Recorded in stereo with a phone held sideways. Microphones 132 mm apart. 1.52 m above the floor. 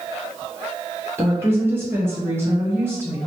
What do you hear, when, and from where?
1.2 s a woman speaking: 15° right (ahead or behind), 1.2 m